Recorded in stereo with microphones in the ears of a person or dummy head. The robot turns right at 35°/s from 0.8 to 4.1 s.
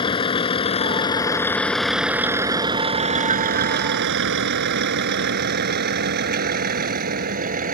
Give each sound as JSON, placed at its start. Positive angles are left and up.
{"t": 0.0, "sound": "a vehicle", "side_deg": 25}